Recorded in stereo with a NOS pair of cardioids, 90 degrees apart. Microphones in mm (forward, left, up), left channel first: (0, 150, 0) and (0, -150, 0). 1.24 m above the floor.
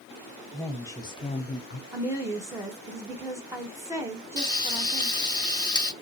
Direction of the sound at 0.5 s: 5° left.